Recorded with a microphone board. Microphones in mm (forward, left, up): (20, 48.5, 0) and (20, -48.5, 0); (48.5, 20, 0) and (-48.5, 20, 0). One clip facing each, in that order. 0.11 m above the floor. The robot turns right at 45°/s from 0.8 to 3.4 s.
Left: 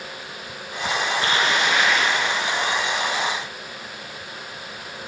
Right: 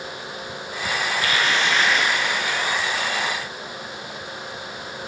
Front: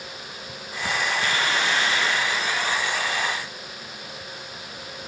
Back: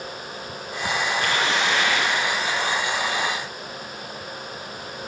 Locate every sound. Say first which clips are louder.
1.2 s tearing paper: even, back 2 dB; 145° left, 4.5 m; by 2.2 s 170° right, 4.5 m